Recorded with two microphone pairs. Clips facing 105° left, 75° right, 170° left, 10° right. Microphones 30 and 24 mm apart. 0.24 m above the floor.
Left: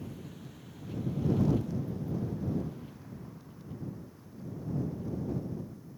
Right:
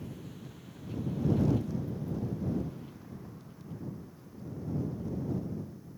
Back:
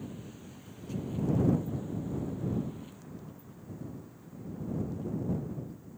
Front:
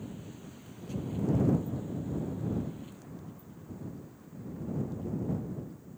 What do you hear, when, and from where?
Only background noise.